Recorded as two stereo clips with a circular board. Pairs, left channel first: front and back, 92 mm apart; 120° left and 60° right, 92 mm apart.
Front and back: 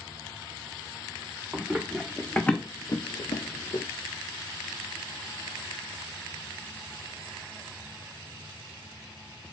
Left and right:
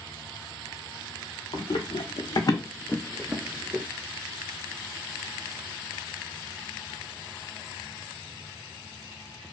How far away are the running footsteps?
About 1.0 m.